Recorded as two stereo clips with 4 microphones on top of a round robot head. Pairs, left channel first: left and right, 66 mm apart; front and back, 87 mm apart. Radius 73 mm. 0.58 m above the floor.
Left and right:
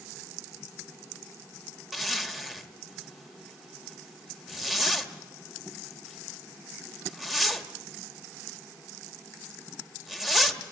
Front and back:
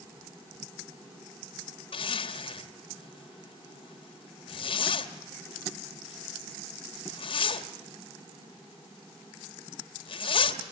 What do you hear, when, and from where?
1.9 s a zipper: 5° right, 1.8 m